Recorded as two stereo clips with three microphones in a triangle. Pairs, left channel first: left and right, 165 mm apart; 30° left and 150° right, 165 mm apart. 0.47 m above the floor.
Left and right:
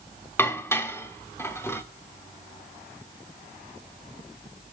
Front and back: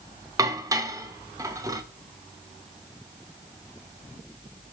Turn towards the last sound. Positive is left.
turn(degrees=155)